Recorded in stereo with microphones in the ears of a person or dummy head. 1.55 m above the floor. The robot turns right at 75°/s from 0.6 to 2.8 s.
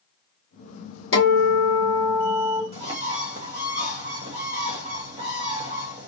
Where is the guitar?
85° left, 1.9 m; by 2.6 s 160° right, 1.9 m.